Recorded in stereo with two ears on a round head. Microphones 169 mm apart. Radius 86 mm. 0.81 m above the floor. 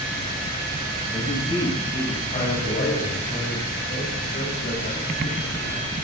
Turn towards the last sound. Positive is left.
turn(degrees=50)  # may be behind; listen again after turning